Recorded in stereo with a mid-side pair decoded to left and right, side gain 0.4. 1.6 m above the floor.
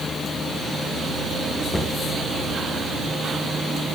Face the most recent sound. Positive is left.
turn(degrees=25)